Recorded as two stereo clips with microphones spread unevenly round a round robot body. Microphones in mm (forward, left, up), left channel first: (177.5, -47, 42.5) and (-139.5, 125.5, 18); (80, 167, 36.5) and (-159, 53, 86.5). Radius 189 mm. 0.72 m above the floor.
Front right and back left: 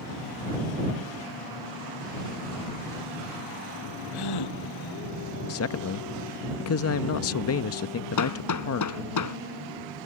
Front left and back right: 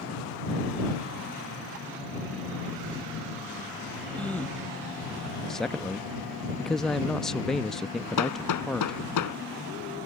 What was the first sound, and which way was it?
A gasp, 60° right.